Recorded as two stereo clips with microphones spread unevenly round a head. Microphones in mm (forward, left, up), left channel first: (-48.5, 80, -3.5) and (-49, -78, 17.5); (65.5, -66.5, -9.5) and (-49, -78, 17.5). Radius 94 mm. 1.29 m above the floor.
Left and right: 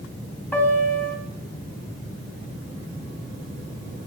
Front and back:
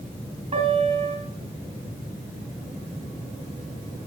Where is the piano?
170° left, 2 m.